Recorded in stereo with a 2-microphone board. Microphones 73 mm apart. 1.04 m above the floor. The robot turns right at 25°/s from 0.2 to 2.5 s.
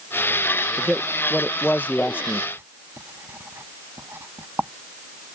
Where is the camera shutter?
I don't hear a camera shutter.